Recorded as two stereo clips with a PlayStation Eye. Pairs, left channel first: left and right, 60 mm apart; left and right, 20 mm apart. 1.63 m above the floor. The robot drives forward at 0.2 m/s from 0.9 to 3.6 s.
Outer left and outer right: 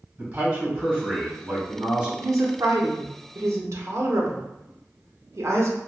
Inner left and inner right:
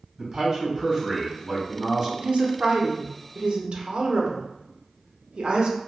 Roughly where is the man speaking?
Right.